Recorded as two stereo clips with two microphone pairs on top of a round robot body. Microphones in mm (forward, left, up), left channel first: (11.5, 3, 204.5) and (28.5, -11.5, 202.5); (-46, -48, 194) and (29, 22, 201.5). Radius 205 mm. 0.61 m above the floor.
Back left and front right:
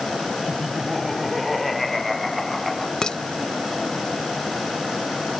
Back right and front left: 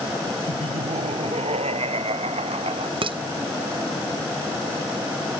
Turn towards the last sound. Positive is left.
turn(degrees=75)